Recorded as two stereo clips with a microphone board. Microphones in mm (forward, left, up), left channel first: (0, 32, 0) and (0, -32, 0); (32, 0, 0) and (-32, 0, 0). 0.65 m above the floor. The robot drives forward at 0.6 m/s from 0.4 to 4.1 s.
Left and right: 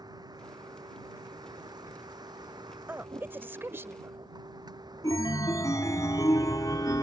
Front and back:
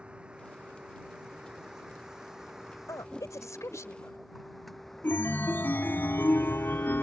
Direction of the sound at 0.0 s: 105° right.